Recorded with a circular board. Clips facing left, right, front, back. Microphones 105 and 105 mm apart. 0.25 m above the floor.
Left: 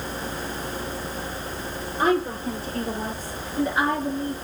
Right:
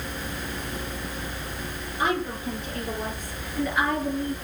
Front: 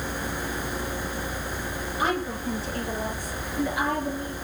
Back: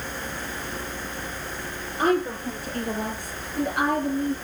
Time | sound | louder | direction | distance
2.0 | a woman speaking | left 4 dB, back 5 dB | 140° left | 6 m